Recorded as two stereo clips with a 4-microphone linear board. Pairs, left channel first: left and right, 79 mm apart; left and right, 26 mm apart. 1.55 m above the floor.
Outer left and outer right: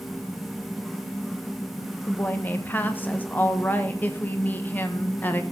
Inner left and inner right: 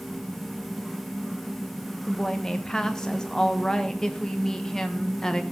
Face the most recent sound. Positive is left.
turn(degrees=20)  # may be behind; listen again after turning